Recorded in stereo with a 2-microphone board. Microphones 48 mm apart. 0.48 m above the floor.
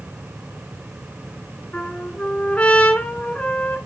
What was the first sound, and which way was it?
A trumpet, 25° left (ahead or behind).